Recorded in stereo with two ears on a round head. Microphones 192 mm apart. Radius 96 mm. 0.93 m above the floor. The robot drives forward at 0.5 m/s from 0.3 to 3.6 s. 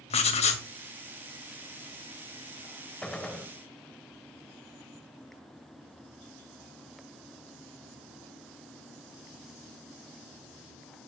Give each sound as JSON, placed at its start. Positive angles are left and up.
{"t": 0.1, "sound": "writing", "side_deg": 30, "distance_m": 2.0}
{"t": 3.0, "sound": "a gunshot", "side_deg": 5, "distance_m": 1.1}